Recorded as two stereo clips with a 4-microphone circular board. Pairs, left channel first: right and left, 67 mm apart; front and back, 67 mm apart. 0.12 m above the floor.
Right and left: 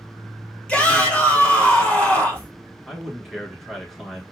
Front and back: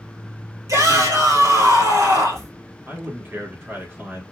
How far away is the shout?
About 2.5 m.